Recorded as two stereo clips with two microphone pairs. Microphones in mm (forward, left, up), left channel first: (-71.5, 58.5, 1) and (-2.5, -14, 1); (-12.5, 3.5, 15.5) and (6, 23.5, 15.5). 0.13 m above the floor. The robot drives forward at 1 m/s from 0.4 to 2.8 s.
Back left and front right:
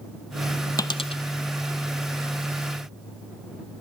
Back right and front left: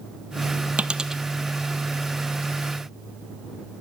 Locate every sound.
0.8 s a dropped coin: 85° left, 0.5 m; by 1.2 s 130° left, 0.7 m